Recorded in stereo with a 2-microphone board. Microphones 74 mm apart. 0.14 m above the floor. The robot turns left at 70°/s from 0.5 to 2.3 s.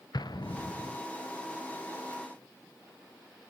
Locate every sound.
0.1 s an explosion: 70° left (ahead or behind), 0.6 m; by 1.0 s 45° left (ahead or behind), 0.6 m